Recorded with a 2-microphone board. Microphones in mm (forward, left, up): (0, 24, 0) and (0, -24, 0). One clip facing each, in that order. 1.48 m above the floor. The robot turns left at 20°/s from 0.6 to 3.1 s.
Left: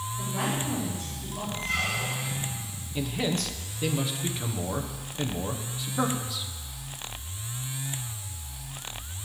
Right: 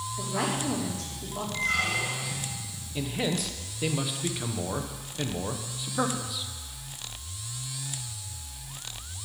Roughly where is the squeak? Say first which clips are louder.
Right 3 dB; right.